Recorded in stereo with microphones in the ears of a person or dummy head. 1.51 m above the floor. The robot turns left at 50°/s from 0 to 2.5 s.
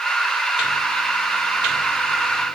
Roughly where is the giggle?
No giggle in this recording.